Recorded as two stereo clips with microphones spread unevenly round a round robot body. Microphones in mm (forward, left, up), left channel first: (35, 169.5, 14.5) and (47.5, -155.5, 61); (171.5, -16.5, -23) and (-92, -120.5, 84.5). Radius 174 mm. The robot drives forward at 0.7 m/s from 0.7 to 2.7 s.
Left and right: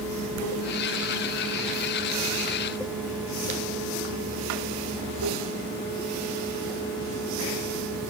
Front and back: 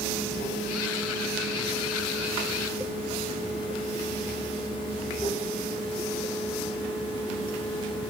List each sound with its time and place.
0.0 s running water: 40° right, 7 m; by 8.1 s 50° right, 6 m